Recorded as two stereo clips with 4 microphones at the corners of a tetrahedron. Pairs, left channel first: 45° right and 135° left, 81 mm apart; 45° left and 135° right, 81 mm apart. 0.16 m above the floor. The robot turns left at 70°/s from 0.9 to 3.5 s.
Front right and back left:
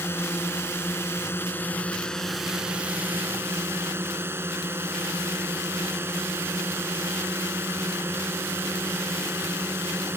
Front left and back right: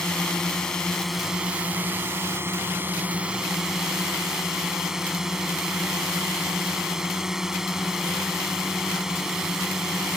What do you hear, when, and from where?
0.0 s a drone: 30° right; by 10.2 s 145° left